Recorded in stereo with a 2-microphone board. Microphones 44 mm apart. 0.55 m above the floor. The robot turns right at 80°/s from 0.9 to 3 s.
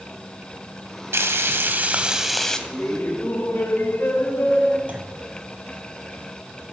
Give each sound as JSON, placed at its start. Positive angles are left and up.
{"t": 1.1, "sound": "frying", "azimuth_deg": -100, "distance_m": 1.0}
{"t": 2.7, "sound": "laughter", "side_deg": 40, "distance_m": 2.0}
{"t": 4.9, "sound": "a clunk", "side_deg": -40, "distance_m": 1.4}